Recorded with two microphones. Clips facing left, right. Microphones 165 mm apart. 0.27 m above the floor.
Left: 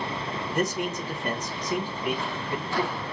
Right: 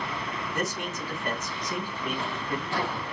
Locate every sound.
0.5 s a man speaking: 15° left (ahead or behind), 2.5 m